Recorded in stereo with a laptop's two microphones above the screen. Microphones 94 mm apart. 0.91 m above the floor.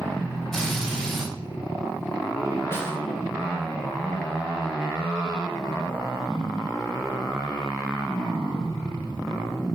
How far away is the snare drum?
About 2 m.